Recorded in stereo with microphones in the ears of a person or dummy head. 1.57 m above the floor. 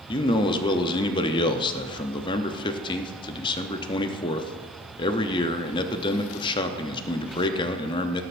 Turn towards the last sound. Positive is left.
turn(degrees=25)  # may be behind; listen again after turning